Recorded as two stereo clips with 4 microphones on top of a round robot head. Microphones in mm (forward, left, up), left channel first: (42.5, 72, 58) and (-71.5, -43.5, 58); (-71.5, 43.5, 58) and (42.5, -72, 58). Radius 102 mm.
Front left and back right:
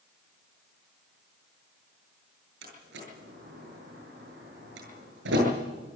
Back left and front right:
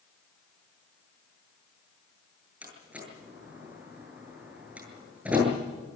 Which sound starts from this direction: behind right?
A door slam, at 2.6 s.